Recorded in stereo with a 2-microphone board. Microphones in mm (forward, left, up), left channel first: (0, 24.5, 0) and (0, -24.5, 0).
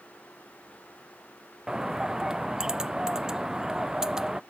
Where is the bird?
10° right (ahead or behind).